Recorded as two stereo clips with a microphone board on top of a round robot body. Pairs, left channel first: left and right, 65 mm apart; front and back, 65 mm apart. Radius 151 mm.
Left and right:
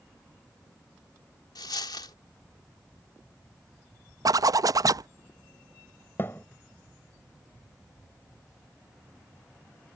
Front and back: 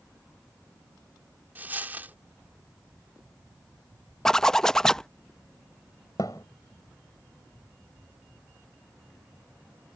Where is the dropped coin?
110° left.